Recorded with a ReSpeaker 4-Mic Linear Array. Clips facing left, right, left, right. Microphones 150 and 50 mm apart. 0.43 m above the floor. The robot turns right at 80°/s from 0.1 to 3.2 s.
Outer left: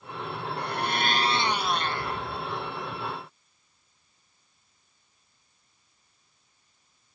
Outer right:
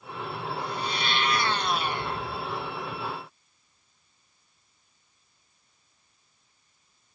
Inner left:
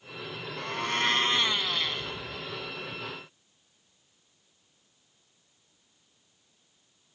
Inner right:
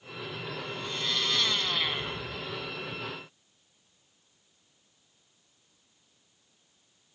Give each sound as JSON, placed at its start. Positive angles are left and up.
{"t": 0.6, "sound": "a blender", "azimuth_deg": 90}